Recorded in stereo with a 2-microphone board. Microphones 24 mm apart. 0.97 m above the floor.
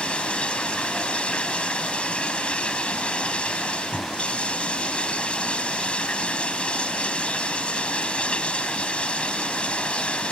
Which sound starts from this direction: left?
Running water, at 0.0 s.